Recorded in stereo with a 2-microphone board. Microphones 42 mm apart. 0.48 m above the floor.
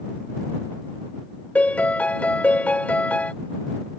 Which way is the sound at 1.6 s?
35° left (ahead or behind).